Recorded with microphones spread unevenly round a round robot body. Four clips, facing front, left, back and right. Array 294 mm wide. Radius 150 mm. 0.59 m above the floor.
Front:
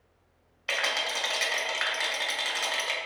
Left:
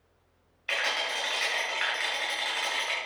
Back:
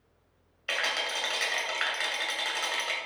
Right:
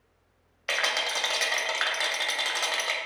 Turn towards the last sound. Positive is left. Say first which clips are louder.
# right 2 dB, front 1 dB
turn(degrees=-110)